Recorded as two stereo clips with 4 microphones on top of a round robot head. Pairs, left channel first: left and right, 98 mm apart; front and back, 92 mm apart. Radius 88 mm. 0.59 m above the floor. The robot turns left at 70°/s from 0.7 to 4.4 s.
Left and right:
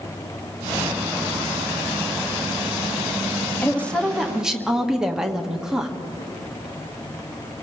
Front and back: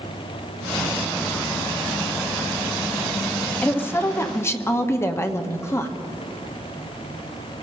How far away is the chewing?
I don't hear chewing.